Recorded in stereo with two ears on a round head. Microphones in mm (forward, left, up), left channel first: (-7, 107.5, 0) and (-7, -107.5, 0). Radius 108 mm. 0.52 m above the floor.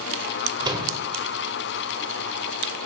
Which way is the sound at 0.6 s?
20° right (ahead or behind).